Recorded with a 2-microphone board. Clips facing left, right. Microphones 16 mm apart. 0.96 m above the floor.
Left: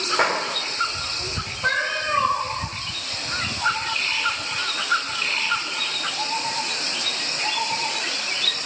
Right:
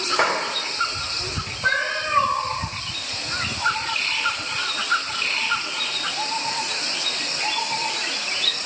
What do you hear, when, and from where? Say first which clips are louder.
0.2 s a clap: even; 5° right (ahead or behind), 3 m
1.6 s a cat meowing: right 1 dB; 10° left (ahead or behind), 3 m